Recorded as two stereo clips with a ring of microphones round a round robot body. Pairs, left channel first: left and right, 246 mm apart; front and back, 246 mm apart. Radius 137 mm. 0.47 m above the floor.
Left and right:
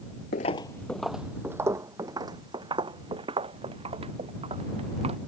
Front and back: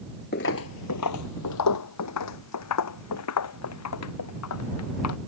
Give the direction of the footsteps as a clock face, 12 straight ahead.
11 o'clock.